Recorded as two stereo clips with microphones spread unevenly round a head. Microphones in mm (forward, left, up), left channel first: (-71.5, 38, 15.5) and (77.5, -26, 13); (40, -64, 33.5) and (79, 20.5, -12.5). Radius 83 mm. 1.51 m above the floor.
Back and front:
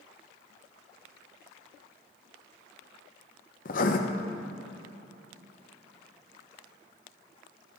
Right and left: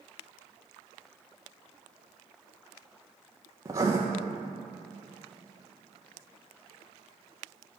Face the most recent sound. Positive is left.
turn(degrees=155)